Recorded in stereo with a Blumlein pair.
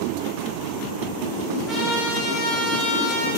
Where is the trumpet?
10° left, 2 m.